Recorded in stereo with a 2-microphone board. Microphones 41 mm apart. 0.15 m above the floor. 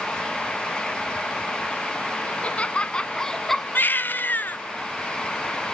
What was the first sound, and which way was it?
Laughter, 35° left (ahead or behind).